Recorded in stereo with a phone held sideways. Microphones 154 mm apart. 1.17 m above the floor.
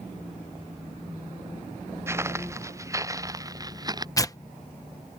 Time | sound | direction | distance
2.1 | footsteps | 20° right (ahead or behind) | ?
4.2 | tearing paper | 25° left (ahead or behind) | ?